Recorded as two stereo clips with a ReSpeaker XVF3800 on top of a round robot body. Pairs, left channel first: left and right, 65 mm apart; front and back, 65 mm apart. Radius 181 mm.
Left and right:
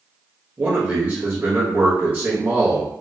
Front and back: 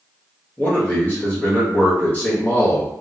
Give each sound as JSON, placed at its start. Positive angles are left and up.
{"t": 0.6, "sound": "a man speaking", "azimuth_deg": -45, "distance_m": 1.6}